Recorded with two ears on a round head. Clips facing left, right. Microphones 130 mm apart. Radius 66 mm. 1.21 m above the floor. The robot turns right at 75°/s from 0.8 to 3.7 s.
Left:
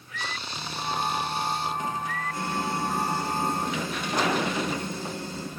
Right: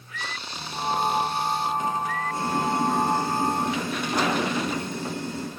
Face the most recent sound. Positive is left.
turn(degrees=-50)